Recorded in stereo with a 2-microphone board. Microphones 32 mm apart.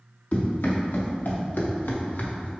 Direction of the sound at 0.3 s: 60° left (ahead or behind).